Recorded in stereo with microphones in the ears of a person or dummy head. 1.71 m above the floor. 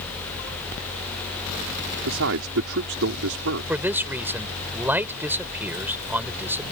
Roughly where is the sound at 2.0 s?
Right.